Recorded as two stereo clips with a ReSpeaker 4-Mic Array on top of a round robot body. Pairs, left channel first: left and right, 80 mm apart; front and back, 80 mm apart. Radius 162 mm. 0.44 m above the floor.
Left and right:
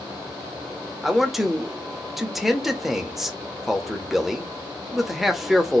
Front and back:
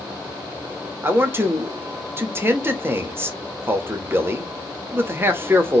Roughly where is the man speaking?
Behind.